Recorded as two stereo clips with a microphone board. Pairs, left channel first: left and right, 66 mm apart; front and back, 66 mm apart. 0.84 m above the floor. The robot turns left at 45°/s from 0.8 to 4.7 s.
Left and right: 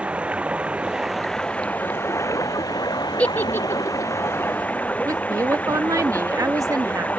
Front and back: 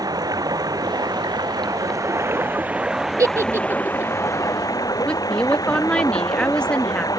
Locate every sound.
0.0 s running water: 160° right; by 7.2 s 25° left
3.2 s a giggle: 155° left; by 4.1 s 115° left
5.0 s a woman speaking: 75° right